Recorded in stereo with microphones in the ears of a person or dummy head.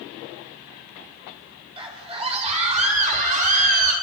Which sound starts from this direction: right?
A scream, at 1.8 s.